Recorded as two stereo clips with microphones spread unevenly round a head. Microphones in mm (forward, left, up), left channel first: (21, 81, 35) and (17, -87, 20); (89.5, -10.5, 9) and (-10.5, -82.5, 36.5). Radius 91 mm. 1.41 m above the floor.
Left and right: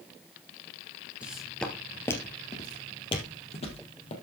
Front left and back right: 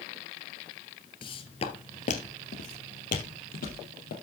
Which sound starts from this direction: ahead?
Footsteps, at 1.2 s.